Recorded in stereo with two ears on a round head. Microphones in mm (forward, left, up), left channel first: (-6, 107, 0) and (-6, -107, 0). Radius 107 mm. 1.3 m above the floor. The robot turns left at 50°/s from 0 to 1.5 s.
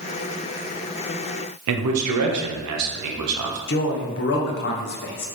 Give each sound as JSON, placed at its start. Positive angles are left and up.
{"t": 1.7, "sound": "a man speaking", "side_deg": -75, "distance_m": 0.7}
{"t": 3.7, "sound": "a man speaking", "side_deg": 45, "distance_m": 0.7}